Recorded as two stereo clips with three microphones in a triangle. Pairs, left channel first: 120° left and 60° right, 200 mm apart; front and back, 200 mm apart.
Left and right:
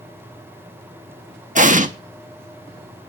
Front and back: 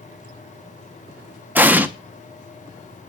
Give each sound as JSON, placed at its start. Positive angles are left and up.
{"t": 1.6, "sound": "an explosion", "azimuth_deg": -100, "distance_m": 0.9}